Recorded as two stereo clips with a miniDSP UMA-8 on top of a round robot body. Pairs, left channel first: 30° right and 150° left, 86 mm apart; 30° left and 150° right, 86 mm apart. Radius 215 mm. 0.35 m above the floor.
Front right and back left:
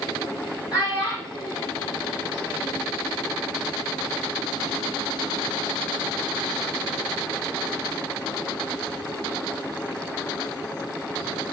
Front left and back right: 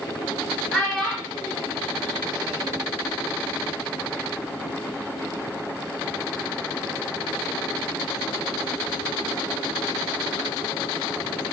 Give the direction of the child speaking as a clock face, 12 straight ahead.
2 o'clock.